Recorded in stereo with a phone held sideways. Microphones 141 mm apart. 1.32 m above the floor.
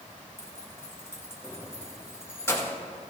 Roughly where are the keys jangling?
Centre.